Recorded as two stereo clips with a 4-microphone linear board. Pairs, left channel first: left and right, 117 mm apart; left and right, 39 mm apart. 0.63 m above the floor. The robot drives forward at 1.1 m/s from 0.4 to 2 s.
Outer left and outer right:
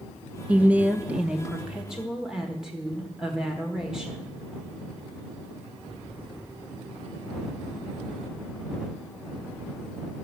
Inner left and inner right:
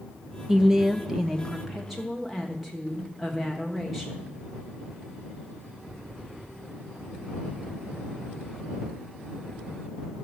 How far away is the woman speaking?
About 0.6 m.